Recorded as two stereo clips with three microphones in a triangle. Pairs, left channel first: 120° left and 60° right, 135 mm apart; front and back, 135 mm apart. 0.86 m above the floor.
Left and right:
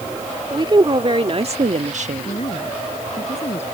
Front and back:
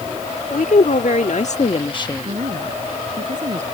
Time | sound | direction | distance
0.5 | a woman speaking | 5° right | ?
2.2 | a woman speaking | 155° left | ?